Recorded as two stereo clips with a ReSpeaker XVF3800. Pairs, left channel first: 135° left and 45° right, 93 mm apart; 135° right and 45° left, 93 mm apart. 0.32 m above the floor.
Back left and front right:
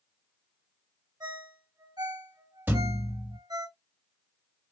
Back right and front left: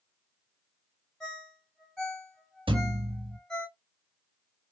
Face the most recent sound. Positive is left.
turn(degrees=25)